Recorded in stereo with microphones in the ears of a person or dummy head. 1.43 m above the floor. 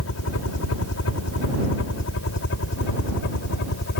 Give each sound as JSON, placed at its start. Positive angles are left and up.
{"t": 0.0, "sound": "a helicopter", "side_deg": 80}